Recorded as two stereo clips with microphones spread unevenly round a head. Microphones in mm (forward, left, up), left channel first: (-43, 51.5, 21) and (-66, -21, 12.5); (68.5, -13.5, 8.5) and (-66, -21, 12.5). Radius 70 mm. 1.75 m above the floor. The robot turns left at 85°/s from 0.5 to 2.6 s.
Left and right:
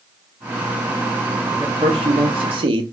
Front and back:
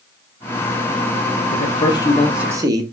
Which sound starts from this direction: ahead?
A man speaking, at 1.5 s.